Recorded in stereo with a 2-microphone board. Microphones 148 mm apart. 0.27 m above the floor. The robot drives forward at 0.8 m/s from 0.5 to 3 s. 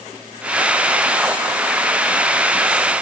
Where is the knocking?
No knocking in this recording.